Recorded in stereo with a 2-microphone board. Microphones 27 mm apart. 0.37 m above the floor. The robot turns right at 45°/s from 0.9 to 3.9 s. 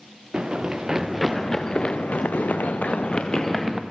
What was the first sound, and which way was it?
Running footsteps, 30° right (ahead or behind).